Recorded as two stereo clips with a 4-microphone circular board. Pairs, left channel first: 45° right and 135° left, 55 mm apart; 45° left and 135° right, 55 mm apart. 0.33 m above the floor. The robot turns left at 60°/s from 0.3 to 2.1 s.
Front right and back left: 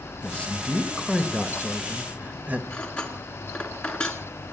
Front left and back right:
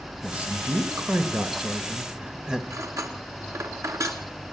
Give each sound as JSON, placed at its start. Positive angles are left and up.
{"t": 0.2, "sound": "a man speaking", "azimuth_deg": -90, "distance_m": 1.6}
{"t": 2.7, "sound": "cutlery clinking", "azimuth_deg": -120, "distance_m": 2.5}